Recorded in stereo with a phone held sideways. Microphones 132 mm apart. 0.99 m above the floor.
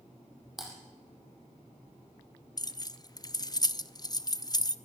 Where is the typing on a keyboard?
Centre (ahead or behind), 7 m.